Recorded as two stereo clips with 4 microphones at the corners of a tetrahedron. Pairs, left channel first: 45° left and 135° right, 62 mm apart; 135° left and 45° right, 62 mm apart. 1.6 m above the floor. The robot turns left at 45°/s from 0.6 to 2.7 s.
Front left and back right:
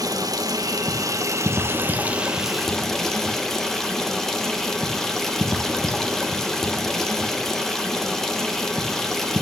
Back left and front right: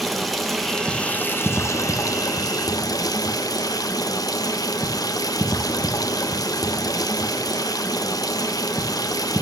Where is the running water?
135° right, 1.7 m; by 9.4 s 130° left, 1.7 m.